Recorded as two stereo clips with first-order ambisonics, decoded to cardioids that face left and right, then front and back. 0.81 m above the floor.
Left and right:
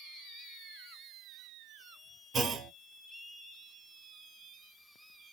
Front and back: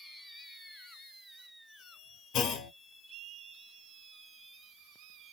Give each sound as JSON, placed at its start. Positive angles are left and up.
{"t": 2.3, "sound": "a clunk", "azimuth_deg": -30, "distance_m": 0.5}